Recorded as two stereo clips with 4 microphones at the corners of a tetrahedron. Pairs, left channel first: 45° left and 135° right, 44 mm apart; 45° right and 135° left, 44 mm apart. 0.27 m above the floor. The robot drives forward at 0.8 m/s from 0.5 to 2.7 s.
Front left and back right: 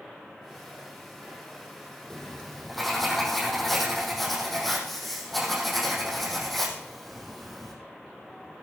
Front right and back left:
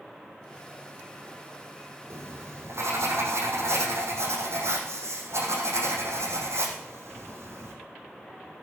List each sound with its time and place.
2.1 s writing: 130° left, 4 m; by 7.7 s 135° left, 4 m